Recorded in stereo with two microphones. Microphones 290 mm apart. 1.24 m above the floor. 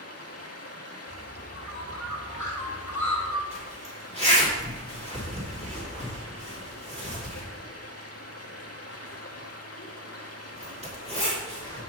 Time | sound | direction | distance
0.0 | running water | 55° left (ahead or behind) | 0.9 m
1.1 | a bird | 75° left (ahead or behind) | 1.3 m
3.5 | a zipper | 20° right (ahead or behind) | 2.5 m